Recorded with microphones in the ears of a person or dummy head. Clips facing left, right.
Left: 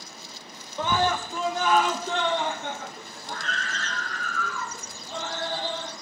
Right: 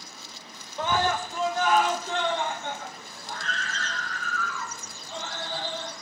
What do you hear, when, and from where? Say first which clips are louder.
0.8 s a scream: left 1 dB; 80° left, 1.1 m; by 5.9 s 45° left (ahead or behind), 4.5 m